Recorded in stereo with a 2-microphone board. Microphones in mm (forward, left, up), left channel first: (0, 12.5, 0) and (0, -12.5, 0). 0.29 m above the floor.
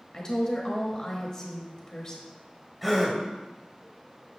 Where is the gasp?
Centre (ahead or behind), 1.4 m.